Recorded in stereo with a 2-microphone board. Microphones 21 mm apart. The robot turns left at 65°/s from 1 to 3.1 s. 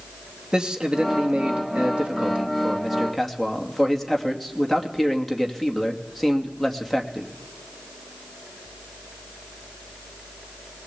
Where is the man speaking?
50° right, 2.5 m; by 7.3 s 175° left, 2.5 m.